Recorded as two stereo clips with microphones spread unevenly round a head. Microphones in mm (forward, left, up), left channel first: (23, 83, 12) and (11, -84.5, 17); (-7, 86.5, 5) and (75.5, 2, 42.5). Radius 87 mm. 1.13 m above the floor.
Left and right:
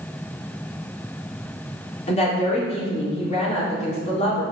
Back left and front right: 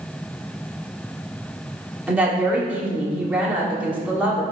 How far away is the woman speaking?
About 2.5 m.